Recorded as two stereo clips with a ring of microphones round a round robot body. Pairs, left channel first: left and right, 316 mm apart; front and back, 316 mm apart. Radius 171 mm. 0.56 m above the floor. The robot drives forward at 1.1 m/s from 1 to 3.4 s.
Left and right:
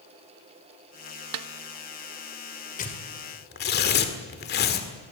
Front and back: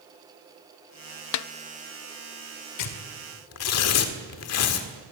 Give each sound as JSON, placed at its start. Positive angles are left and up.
{"t": 1.3, "sound": "a snare drum", "azimuth_deg": -40, "distance_m": 0.6}
{"t": 2.8, "sound": "tearing paper", "azimuth_deg": 25, "distance_m": 2.5}